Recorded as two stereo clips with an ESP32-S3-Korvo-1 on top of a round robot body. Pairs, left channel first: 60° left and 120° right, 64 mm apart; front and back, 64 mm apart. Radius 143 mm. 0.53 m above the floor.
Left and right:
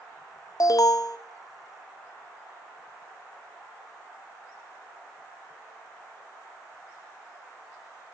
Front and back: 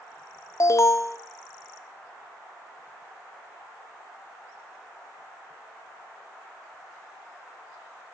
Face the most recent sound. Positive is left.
turn(degrees=40)